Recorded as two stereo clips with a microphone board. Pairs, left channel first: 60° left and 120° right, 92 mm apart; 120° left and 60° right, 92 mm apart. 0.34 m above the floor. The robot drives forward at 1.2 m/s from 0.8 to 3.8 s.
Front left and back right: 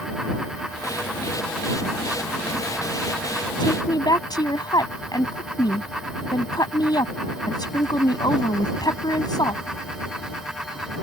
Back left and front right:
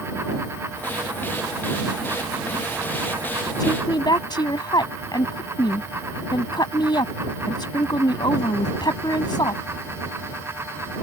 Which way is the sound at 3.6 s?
90° left.